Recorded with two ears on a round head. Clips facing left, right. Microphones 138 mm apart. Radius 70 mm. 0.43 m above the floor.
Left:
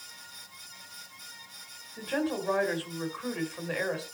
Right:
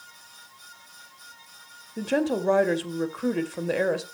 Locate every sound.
2.0 s a woman speaking: 50° right (ahead or behind), 2 m